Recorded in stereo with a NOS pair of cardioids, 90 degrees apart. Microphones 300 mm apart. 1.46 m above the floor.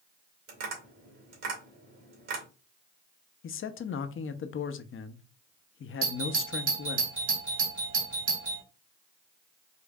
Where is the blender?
No blender in this recording.